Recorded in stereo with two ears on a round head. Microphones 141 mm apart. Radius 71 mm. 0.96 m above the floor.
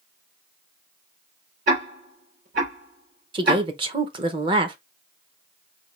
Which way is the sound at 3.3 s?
30° right (ahead or behind).